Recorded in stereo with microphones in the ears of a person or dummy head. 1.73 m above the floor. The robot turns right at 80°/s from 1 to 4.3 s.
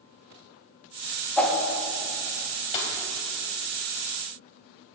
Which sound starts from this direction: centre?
A whoosh, at 1.4 s.